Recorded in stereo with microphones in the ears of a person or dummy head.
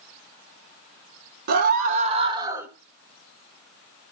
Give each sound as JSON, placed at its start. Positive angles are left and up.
{"t": 1.5, "sound": "a scream", "side_deg": -40, "distance_m": 1.3}